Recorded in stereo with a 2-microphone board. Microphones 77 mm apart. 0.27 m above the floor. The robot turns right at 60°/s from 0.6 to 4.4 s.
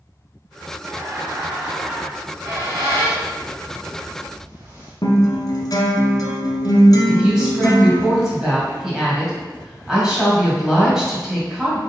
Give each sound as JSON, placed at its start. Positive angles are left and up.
{"t": 0.8, "sound": "laughter", "side_deg": -25, "distance_m": 1.1}
{"t": 2.1, "sound": "a squeak", "side_deg": -10, "distance_m": 1.6}
{"t": 5.0, "sound": "a guitar", "side_deg": 60, "distance_m": 1.1}
{"t": 7.1, "sound": "a woman speaking", "side_deg": -10, "distance_m": 1.7}